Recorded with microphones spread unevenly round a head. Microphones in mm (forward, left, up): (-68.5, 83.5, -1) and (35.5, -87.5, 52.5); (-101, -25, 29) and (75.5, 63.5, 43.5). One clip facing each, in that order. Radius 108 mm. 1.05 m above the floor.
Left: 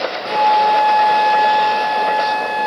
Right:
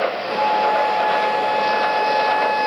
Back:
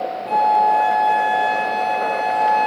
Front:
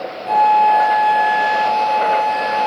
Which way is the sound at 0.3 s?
105° left.